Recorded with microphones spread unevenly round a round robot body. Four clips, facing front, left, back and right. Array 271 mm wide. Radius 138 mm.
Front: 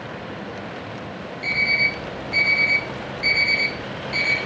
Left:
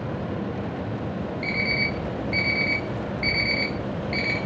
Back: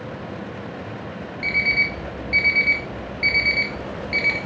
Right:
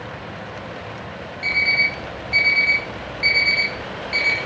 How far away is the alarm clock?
About 1.1 m.